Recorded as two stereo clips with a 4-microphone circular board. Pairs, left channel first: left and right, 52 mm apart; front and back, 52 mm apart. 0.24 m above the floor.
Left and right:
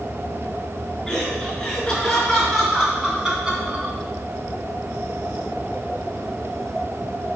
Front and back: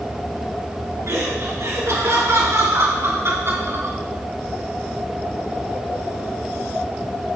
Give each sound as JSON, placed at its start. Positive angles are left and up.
{"t": 1.1, "sound": "laughter", "azimuth_deg": 165, "distance_m": 4.0}